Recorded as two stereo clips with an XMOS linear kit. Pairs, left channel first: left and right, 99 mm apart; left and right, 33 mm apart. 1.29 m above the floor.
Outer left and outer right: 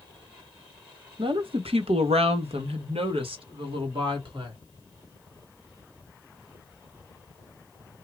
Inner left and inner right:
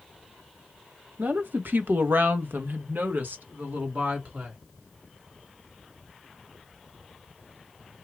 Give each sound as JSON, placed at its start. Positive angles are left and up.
{"t": 1.2, "sound": "a woman speaking", "side_deg": -55, "distance_m": 1.0}